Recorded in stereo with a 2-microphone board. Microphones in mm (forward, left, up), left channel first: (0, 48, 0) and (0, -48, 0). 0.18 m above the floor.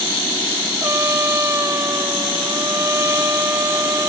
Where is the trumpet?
25° right (ahead or behind).